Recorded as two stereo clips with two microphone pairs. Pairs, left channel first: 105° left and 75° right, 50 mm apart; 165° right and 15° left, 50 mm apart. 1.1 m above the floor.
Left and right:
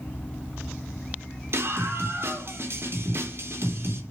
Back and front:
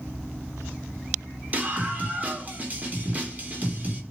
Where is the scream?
40° right, 3.5 m.